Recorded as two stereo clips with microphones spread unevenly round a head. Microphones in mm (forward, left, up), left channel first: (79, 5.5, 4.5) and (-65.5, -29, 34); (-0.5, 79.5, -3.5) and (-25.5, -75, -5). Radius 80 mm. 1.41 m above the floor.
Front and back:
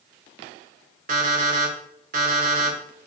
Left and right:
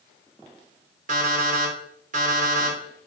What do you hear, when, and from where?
1.1 s an alarm clock: 140° right, 2.5 m